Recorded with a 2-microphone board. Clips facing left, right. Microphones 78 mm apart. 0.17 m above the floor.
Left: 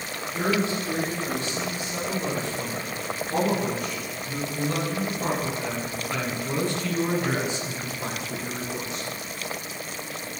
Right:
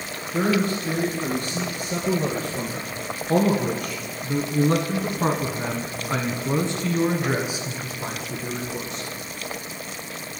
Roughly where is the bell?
I don't hear a bell.